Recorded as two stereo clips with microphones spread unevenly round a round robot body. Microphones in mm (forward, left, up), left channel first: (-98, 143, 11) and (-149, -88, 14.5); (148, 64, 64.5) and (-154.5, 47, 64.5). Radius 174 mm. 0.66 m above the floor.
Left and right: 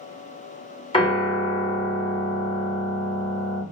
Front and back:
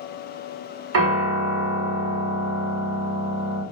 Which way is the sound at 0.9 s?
145° left.